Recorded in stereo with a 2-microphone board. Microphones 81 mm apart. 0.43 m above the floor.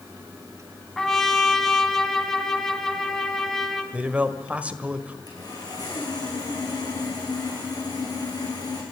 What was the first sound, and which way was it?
A trumpet, 5° left (ahead or behind).